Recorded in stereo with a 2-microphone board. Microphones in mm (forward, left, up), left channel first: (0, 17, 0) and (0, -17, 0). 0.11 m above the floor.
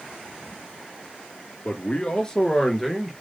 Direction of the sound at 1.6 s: 40° left (ahead or behind).